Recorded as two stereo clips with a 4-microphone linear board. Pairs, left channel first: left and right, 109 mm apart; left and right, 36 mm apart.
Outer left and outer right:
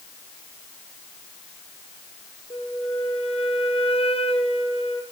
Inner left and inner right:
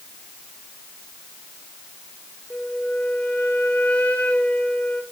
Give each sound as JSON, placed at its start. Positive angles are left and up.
{"t": 2.5, "sound": "a flute", "side_deg": 60, "distance_m": 1.6}